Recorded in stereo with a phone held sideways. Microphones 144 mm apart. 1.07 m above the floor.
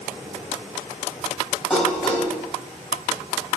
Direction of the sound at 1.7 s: Centre (ahead or behind).